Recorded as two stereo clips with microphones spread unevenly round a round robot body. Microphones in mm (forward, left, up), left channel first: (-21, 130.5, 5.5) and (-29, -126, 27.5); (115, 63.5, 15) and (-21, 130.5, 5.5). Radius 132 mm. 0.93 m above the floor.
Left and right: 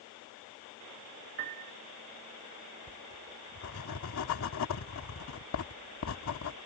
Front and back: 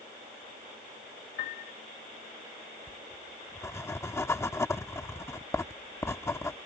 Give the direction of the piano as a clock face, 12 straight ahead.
1 o'clock.